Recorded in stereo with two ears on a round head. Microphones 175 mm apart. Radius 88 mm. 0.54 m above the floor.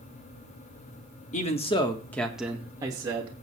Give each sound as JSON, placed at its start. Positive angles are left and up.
{"t": 1.3, "sound": "a man speaking", "side_deg": 40, "distance_m": 1.3}